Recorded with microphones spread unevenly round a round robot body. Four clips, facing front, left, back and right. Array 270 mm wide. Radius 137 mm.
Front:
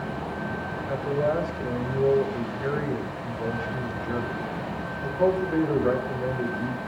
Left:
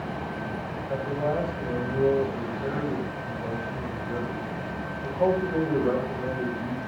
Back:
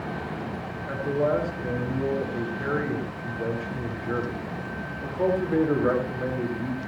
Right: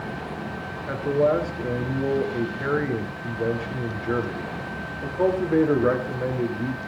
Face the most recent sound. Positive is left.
turn(degrees=-105)